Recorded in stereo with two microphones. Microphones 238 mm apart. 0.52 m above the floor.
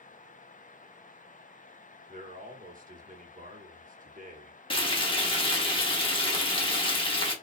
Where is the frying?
20° left (ahead or behind), 1.0 m.